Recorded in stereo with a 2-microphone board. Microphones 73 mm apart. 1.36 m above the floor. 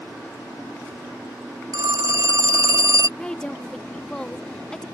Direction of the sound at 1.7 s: 55° right (ahead or behind).